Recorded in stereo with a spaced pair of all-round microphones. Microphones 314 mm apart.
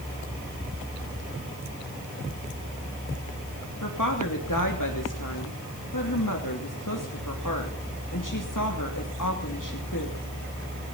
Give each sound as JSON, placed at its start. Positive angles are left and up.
{"t": 3.8, "sound": "a woman speaking", "side_deg": 80, "distance_m": 3.0}